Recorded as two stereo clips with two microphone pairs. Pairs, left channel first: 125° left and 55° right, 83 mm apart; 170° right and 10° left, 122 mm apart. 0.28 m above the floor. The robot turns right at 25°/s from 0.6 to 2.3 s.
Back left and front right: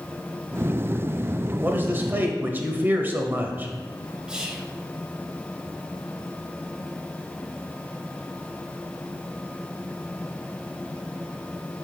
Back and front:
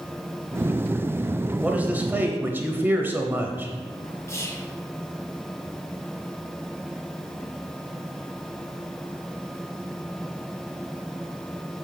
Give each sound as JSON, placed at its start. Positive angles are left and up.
{"t": 1.6, "sound": "a man speaking", "azimuth_deg": -55, "distance_m": 1.0}
{"t": 4.3, "sound": "whispering", "azimuth_deg": -130, "distance_m": 1.2}